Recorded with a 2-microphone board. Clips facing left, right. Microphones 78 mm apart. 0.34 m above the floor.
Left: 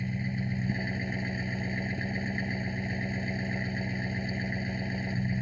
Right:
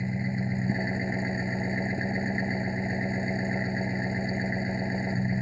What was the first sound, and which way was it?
An engine running, 25° right (ahead or behind).